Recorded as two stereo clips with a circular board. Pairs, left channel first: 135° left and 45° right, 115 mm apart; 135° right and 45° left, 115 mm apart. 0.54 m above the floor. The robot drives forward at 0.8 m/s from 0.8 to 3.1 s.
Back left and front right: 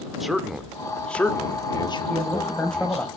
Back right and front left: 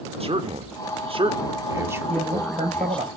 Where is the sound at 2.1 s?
45° left, 3.5 m; by 3.1 s 55° left, 3 m.